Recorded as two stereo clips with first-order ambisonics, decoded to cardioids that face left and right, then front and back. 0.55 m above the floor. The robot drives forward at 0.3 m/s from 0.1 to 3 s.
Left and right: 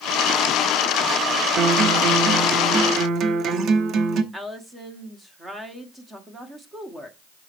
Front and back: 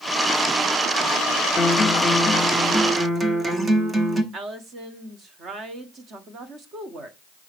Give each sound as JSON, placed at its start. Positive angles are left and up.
{"t": 1.6, "sound": "a guitar", "azimuth_deg": -70, "distance_m": 1.0}
{"t": 4.3, "sound": "a woman speaking", "azimuth_deg": -160, "distance_m": 1.3}